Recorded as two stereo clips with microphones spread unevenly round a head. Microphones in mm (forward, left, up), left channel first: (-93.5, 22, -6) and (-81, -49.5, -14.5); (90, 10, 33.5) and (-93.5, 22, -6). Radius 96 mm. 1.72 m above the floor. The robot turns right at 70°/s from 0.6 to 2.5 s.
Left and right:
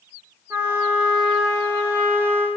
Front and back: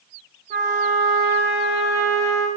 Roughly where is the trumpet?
Behind right.